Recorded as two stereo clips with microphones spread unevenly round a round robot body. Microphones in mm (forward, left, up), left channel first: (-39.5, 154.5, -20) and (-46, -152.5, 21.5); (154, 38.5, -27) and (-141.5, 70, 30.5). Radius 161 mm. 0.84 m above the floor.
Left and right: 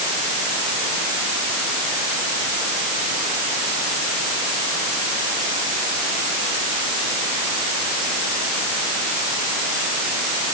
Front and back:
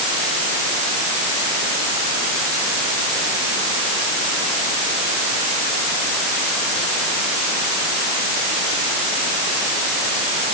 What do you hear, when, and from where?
Only background noise.